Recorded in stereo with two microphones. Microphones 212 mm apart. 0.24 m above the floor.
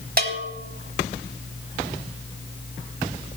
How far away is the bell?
About 1.2 m.